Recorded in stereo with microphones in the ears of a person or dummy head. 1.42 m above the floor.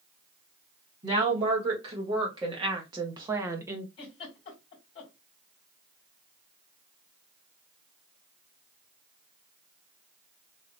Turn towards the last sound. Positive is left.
turn(degrees=30)  # may be behind; listen again after turning